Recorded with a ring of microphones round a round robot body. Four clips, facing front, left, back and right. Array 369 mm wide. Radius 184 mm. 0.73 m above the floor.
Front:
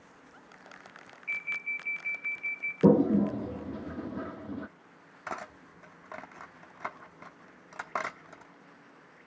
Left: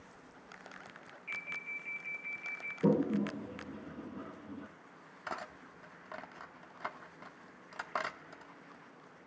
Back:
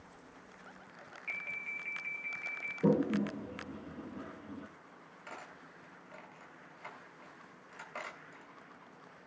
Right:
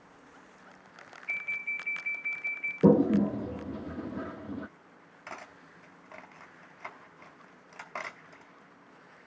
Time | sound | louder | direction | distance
1.3 | an alarm | right 7 dB, front 7 dB | straight behind | 2.5 m
2.8 | a toilet flushing | right 8 dB, front 8 dB | 45° right | 0.8 m
5.3 | cutlery clinking | left 3 dB, front 10 dB | 15° left | 1.1 m